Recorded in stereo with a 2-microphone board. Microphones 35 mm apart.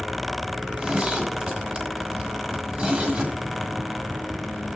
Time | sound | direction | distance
0.6 | a zipper | 50° right (ahead or behind) | 2.5 m